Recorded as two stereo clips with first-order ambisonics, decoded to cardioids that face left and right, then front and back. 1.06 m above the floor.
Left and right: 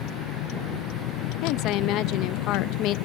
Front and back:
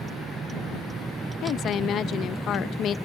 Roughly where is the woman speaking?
Ahead left.